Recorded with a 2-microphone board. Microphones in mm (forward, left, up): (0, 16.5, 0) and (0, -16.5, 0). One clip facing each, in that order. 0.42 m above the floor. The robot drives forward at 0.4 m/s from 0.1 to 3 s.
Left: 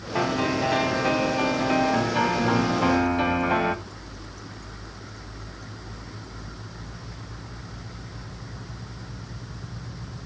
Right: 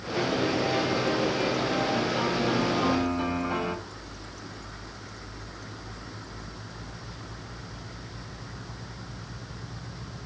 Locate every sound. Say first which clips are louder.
0.1 s a piano: left 2 dB; 55° left (ahead or behind), 1.6 m; by 3.8 s 70° left (ahead or behind), 1.3 m